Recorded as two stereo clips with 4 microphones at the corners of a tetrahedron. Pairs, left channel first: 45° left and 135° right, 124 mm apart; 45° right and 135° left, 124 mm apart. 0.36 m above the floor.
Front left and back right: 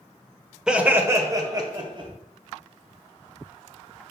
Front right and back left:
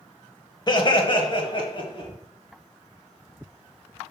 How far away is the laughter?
About 1.1 m.